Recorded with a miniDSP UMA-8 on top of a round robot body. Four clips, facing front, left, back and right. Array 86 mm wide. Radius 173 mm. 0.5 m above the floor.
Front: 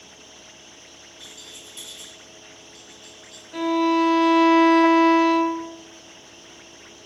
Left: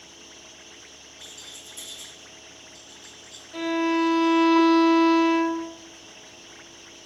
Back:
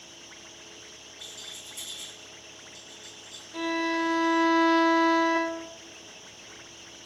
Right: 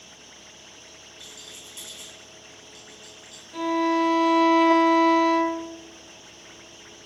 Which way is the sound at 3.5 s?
10° left.